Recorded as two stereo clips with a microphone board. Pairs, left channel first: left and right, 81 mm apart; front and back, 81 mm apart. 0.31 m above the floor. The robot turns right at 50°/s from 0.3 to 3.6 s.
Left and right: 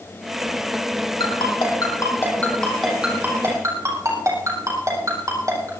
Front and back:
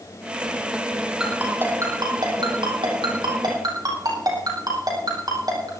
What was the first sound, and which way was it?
A ringtone, 100° left.